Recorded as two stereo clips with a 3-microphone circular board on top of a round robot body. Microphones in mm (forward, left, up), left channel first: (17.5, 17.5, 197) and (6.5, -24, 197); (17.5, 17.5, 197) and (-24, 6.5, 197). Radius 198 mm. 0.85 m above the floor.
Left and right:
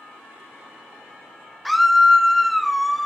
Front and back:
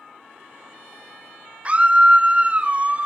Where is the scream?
165° left, 0.5 m.